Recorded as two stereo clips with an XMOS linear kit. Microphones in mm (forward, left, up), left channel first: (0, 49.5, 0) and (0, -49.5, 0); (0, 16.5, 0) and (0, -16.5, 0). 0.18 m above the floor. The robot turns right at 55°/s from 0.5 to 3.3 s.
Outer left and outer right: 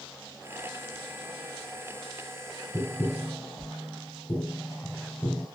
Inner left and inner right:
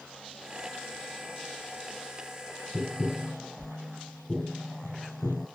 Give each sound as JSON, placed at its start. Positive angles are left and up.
{"t": 2.7, "sound": "tapping", "side_deg": 30, "distance_m": 1.1}